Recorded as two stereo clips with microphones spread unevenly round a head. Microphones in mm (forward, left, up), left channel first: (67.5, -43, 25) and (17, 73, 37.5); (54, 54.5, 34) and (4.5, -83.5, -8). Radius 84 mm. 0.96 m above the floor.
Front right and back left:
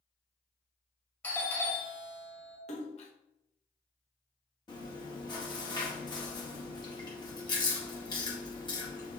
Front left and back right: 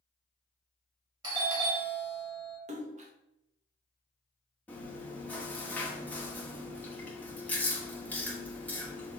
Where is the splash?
90° right, 0.7 m.